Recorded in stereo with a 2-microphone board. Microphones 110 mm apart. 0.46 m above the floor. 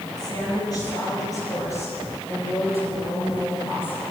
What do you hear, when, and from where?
0.2 s a woman speaking: 40° left (ahead or behind), 7.5 m; by 4.0 s 20° left (ahead or behind), 9.5 m